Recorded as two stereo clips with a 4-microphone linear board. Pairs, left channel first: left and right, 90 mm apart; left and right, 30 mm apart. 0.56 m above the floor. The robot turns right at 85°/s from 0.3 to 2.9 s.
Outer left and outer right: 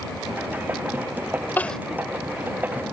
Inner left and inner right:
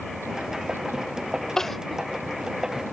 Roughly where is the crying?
Left.